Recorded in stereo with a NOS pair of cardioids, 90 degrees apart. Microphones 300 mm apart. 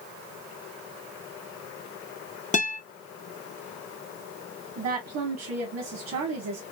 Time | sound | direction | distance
2.5 | a guitar | 25° left | 0.9 m
4.8 | a woman speaking | 60° right | 1.2 m